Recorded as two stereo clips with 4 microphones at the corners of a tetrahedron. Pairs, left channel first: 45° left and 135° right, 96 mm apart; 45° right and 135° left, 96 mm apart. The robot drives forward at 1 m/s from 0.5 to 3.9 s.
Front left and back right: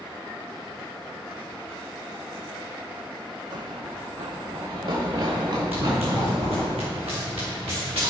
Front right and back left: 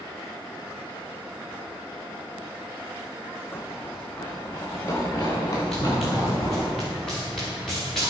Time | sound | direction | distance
3.5 | running footsteps | 110° right | 1.1 m
5.7 | running footsteps | 130° right | 3.5 m